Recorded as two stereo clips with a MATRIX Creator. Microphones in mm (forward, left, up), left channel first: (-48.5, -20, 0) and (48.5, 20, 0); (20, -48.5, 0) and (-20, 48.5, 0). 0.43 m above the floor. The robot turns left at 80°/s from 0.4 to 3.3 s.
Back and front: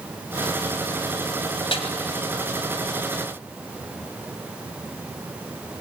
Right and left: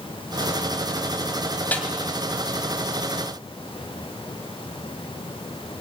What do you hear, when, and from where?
1.7 s a snare drum: 140° right, 2.5 m; by 1.9 s 155° right, 2.5 m